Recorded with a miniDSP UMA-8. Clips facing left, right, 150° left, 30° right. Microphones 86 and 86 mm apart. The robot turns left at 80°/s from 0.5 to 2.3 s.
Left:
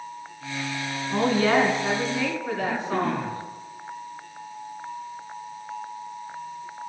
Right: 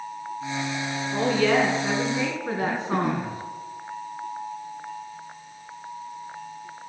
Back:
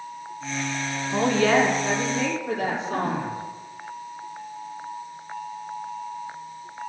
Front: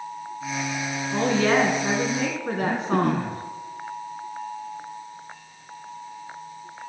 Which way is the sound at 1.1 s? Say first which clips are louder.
Left 1 dB, back 1 dB; 70° left.